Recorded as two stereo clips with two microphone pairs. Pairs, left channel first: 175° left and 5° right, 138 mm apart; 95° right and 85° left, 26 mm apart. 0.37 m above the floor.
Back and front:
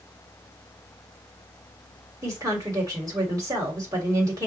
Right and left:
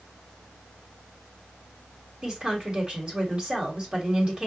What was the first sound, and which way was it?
A woman speaking, 45° left.